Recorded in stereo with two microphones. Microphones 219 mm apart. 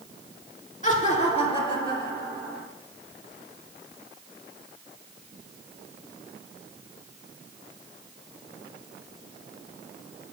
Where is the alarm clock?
I don't hear an alarm clock.